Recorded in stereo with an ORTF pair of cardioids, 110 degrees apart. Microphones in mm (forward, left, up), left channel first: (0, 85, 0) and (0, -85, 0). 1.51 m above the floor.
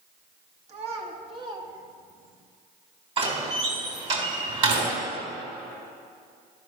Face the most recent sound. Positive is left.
turn(degrees=-35)